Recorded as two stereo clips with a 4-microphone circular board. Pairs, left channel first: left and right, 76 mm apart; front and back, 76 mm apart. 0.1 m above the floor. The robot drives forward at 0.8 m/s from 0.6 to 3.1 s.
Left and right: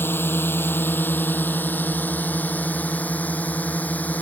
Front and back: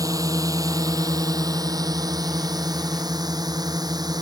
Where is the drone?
150° left; by 4.2 s 160° left.